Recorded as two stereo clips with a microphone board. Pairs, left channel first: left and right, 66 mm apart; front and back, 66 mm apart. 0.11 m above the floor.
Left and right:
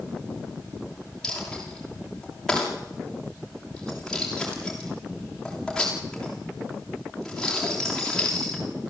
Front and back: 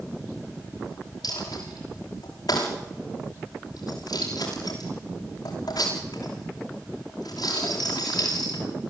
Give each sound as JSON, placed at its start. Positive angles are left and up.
{"t": 1.2, "sound": "a dropped coin", "azimuth_deg": 10, "distance_m": 8.0}